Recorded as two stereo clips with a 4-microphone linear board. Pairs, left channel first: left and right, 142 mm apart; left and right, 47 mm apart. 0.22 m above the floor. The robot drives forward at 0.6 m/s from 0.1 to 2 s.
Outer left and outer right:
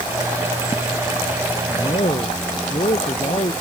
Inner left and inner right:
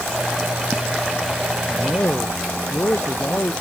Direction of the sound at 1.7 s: 45° left (ahead or behind).